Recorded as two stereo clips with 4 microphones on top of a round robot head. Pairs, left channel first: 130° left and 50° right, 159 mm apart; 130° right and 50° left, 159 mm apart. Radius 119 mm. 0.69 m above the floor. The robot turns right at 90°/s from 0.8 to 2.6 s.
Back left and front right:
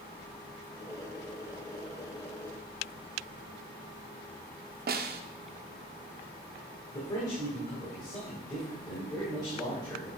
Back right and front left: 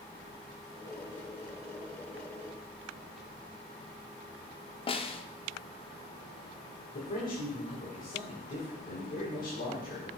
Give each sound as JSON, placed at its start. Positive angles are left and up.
{"t": 4.9, "sound": "a snare drum", "azimuth_deg": -75, "distance_m": 0.8}
{"t": 6.9, "sound": "a man speaking", "azimuth_deg": -165, "distance_m": 3.5}